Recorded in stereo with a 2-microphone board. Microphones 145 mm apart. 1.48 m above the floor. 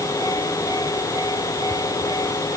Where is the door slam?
No door slam in this recording.